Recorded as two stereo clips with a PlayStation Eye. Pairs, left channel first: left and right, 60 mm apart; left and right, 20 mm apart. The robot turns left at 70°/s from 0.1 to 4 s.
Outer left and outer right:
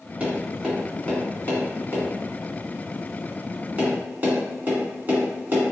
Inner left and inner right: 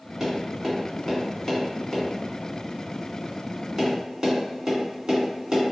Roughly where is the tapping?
Right.